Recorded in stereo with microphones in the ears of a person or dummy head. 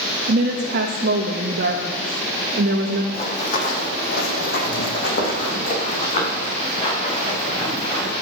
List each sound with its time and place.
0.3 s a woman speaking: 55° right (ahead or behind), 0.9 m
3.1 s running footsteps: 40° left (ahead or behind), 2.5 m; by 8.1 s 35° left (ahead or behind), 6.5 m